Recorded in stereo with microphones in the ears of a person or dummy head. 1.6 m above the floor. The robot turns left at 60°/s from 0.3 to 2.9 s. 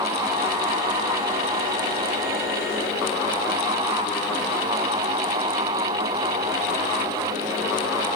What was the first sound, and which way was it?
Only background noise.